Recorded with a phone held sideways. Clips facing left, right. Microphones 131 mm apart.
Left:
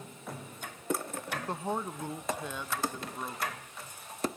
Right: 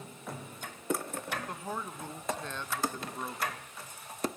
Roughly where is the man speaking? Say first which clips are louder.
Left 6 dB; left.